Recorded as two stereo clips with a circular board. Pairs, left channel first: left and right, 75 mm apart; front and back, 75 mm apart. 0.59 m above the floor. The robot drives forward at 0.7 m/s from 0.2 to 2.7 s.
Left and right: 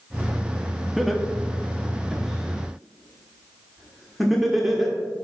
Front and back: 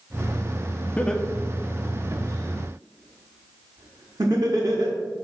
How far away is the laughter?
About 0.6 m.